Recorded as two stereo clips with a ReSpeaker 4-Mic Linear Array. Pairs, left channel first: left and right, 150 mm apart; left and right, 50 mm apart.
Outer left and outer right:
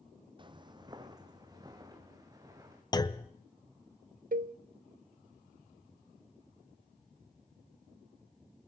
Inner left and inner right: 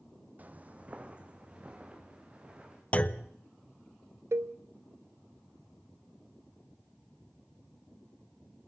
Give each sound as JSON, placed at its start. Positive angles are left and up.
{"t": 0.4, "sound": "footsteps", "side_deg": -30, "distance_m": 1.1}
{"t": 2.9, "sound": "a clunk", "side_deg": 25, "distance_m": 0.6}
{"t": 4.3, "sound": "a cowbell", "side_deg": -65, "distance_m": 0.6}